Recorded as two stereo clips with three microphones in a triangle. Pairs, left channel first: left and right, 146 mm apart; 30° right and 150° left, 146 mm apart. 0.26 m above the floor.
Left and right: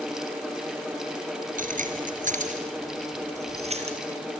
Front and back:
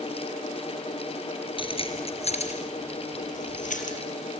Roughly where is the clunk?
No clunk in this recording.